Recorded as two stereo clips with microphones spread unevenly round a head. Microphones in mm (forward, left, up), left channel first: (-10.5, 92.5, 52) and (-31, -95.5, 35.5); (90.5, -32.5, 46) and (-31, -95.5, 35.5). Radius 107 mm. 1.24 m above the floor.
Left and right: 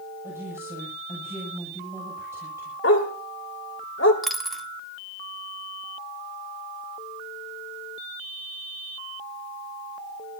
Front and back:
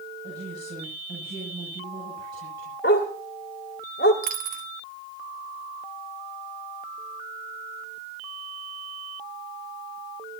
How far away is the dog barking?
About 2 m.